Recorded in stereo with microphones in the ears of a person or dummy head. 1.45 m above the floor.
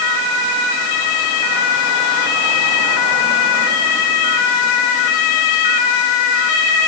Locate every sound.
Only background noise.